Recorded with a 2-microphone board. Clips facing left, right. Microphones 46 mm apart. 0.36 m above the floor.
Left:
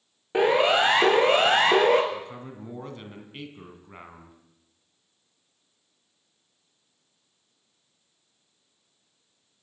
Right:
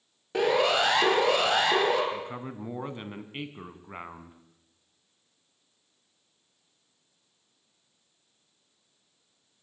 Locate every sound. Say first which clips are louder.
0.3 s a siren: left 4 dB; 20° left (ahead or behind), 5 m; by 2.0 s 45° left (ahead or behind), 5.5 m
2.1 s a man speaking: right 1 dB; 25° right (ahead or behind), 3.5 m